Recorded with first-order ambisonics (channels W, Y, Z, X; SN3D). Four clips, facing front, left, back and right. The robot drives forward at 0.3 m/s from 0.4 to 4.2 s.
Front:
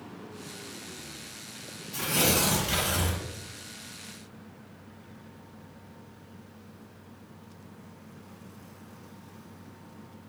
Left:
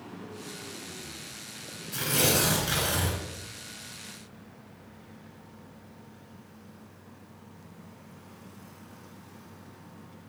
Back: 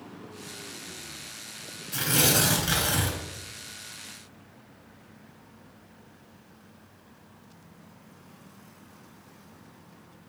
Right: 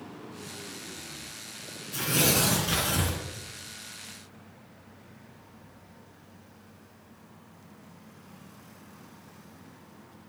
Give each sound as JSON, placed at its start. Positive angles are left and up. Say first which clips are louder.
{"t": 1.9, "sound": "tearing paper", "louder": "even, back 2 dB", "azimuth_deg": 165, "distance_m": 2.5}